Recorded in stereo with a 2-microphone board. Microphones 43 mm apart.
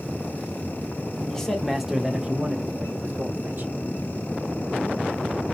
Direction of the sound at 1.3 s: 15° left (ahead or behind).